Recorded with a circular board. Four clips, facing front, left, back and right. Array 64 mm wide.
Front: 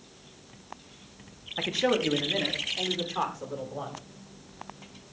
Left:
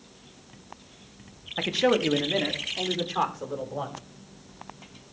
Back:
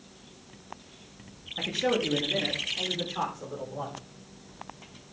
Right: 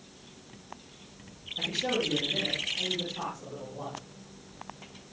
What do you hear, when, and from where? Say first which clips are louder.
1.6 s a man speaking: left 8 dB, front 1 dB; 70° left, 1.6 m; by 4.0 s 80° left, 4 m